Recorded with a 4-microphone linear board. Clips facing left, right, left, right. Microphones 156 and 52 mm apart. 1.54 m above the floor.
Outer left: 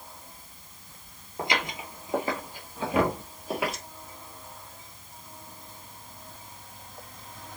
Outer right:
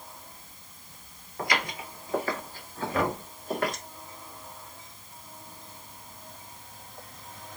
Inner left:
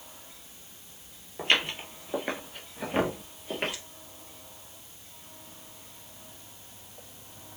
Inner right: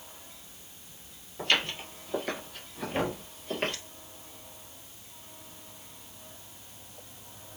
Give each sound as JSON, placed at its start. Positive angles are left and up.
{"t": 1.4, "sound": "footsteps", "side_deg": 25, "distance_m": 1.6}
{"t": 2.9, "sound": "knocking", "side_deg": 60, "distance_m": 1.6}